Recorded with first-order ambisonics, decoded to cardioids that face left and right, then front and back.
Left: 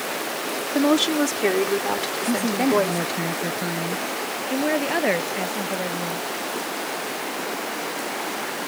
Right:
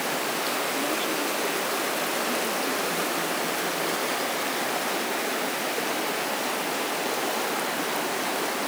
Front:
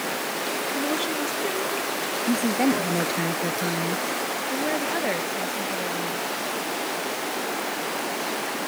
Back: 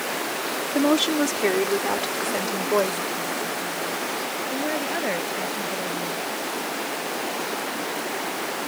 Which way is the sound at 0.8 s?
125° left.